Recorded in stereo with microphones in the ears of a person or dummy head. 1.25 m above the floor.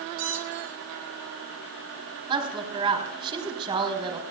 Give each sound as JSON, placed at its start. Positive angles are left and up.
{"t": 0.2, "sound": "a squeak", "side_deg": -75, "distance_m": 2.5}
{"t": 2.3, "sound": "a woman speaking", "side_deg": -35, "distance_m": 3.0}